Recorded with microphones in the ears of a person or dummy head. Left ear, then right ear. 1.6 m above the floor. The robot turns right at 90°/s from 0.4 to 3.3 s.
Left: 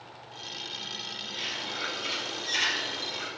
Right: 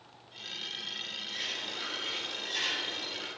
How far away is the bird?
About 1.3 m.